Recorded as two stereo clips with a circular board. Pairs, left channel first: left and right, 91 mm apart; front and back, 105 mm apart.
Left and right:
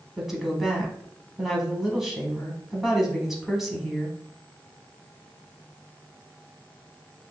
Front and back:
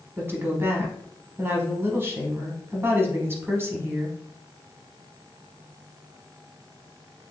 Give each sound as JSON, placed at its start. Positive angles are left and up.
{"t": 0.2, "sound": "a woman speaking", "azimuth_deg": -170, "distance_m": 1.1}